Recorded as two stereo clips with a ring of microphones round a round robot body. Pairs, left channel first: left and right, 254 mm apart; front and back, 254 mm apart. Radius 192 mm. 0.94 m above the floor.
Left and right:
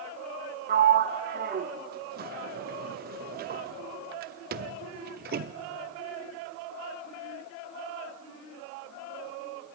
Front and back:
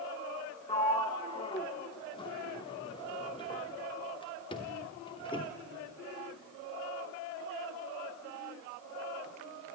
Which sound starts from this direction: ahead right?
A sliding door, at 0.7 s.